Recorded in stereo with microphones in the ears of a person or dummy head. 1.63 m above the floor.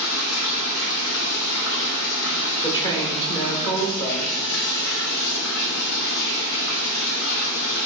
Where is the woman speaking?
25° left (ahead or behind), 1.2 m.